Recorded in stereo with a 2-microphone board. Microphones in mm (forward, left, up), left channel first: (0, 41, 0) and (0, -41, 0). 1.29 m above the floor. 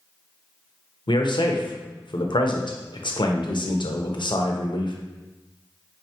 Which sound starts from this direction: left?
A man speaking, at 1.1 s.